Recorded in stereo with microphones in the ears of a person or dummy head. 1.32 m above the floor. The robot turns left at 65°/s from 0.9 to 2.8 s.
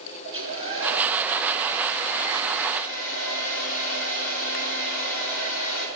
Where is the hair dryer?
150° right, 2 m; by 5.9 s 85° left, 2 m.